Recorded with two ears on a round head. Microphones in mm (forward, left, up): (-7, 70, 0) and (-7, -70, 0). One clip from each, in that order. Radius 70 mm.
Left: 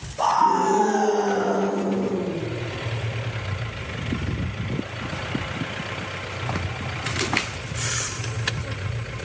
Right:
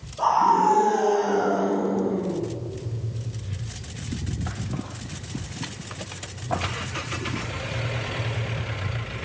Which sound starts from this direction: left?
A scream, at 0.2 s.